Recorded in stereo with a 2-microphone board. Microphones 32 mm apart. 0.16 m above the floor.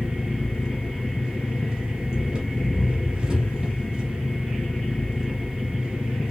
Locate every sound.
0.0 s an engine running: 40° right (ahead or behind), 1.4 m